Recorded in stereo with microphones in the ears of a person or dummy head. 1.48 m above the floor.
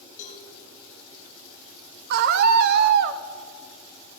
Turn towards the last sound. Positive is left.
turn(degrees=-60)  # may be behind; listen again after turning